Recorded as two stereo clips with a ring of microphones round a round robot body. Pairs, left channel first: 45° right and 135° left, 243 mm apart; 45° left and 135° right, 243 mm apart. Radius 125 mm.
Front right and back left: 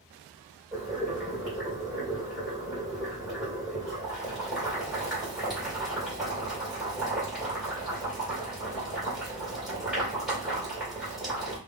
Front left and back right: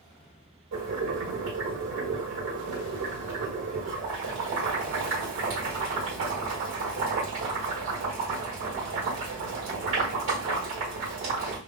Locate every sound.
0.7 s boiling: 135° right, 2 m